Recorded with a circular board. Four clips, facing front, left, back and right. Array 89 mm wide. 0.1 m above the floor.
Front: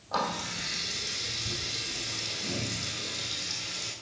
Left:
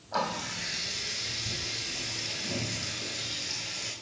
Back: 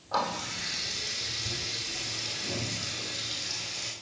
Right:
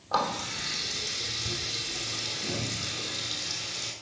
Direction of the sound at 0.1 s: 90° right.